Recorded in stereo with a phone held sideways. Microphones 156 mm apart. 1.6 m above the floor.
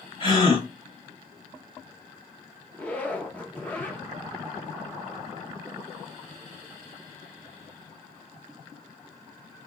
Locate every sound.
0.2 s a gasp: 30° left (ahead or behind), 3 m
2.7 s a zipper: 10° left (ahead or behind), 1.1 m